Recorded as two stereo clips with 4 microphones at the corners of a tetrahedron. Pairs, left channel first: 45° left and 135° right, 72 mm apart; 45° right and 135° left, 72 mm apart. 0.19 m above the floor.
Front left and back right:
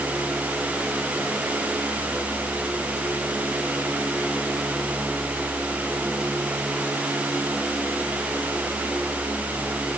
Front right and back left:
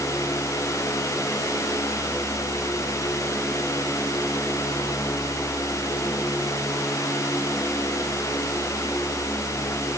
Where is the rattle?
No rattle in this recording.